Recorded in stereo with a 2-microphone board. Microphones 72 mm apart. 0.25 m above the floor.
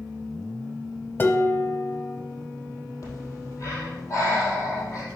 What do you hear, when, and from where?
1.2 s dishes clattering: 30° left (ahead or behind), 0.8 m
3.0 s breathing: 40° left (ahead or behind), 3.5 m